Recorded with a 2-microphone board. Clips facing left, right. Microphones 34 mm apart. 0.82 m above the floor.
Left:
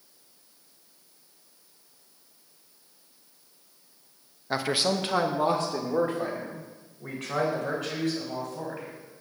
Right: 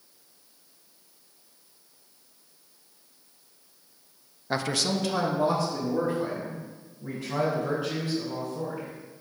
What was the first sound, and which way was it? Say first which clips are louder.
A man speaking: left 1 dB; centre (ahead or behind).